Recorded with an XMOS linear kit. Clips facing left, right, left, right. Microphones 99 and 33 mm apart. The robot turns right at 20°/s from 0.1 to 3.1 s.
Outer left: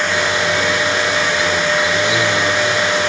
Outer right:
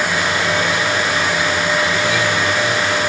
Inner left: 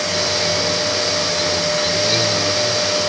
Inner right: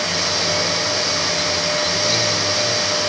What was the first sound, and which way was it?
Only background noise.